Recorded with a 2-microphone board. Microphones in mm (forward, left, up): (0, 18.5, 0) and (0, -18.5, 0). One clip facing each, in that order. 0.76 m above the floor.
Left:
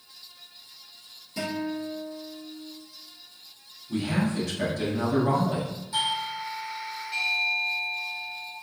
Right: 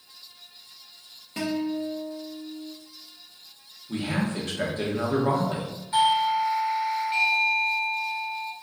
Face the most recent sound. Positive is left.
turn(degrees=-35)  # may be behind; listen again after turning